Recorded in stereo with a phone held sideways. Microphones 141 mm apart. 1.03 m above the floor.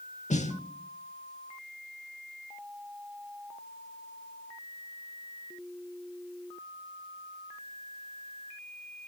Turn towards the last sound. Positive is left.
turn(degrees=60)  # may be behind; listen again after turning